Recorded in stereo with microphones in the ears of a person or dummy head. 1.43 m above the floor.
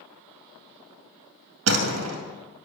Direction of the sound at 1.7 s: 80° right.